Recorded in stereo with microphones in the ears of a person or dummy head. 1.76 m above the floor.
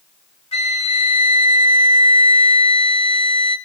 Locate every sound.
0.5 s a flute: 35° left (ahead or behind), 2.5 m